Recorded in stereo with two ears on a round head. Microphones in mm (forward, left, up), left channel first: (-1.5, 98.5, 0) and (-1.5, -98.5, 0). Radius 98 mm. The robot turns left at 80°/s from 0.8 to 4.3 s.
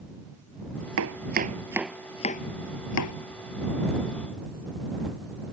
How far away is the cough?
No cough in this recording.